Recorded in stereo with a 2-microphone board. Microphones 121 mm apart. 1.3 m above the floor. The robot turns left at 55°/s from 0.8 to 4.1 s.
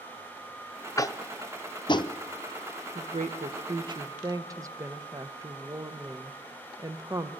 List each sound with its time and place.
1.0 s tapping: 25° left (ahead or behind), 0.6 m; by 2.1 s 35° left (ahead or behind), 0.6 m
3.0 s a woman speaking: 90° right, 0.8 m; by 7.3 s 155° right, 0.8 m